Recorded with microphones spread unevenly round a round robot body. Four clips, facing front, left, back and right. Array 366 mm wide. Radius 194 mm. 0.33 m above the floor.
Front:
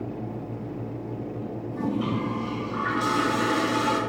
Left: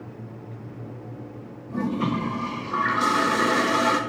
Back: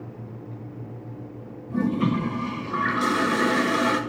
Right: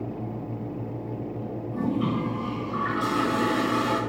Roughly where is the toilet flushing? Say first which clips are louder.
Left 1 dB, back 4 dB; behind.